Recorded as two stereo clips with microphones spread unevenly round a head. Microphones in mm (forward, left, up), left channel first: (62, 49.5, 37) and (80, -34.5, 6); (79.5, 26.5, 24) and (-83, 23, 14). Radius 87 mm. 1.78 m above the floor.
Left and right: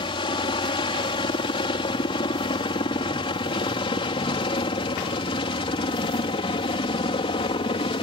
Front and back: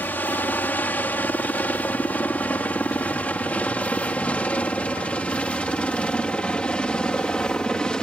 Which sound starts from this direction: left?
A helicopter, at 0.0 s.